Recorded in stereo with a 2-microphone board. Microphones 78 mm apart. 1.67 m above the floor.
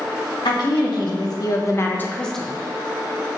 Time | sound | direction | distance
0.5 | a woman speaking | 75° left (ahead or behind) | 1.6 m